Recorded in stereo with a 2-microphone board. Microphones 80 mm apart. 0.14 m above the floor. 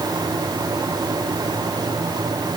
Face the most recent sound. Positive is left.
No sound to turn to.